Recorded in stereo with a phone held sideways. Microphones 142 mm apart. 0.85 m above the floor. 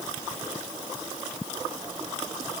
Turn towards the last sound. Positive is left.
No sound to turn to.